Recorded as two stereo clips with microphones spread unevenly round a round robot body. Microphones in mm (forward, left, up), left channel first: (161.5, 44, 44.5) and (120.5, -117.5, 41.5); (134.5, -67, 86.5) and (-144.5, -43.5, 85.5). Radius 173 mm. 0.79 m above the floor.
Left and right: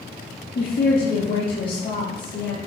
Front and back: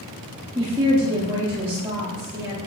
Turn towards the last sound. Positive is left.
turn(degrees=100)